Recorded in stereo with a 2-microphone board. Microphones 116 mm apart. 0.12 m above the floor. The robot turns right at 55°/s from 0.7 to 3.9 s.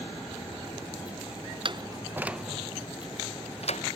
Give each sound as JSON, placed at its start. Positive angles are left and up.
{"t": 1.6, "sound": "a door slam", "side_deg": -45}